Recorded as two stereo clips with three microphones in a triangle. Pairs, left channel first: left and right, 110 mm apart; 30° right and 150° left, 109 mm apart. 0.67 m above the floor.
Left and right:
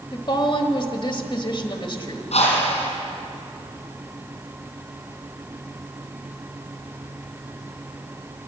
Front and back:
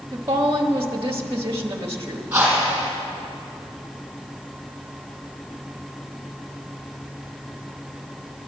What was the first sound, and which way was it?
A woman speaking, 95° left.